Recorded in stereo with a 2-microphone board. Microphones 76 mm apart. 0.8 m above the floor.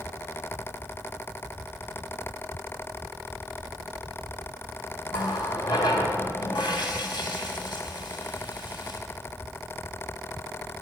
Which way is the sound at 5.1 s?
85° left.